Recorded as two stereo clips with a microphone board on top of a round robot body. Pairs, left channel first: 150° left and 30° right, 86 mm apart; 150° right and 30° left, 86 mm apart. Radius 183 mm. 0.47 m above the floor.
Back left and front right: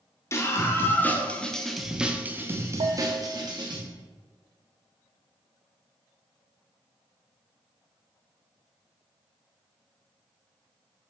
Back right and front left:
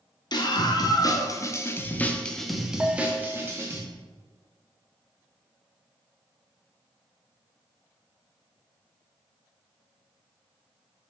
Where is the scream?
160° right, 2.0 m; by 3.8 s 25° right, 1.9 m.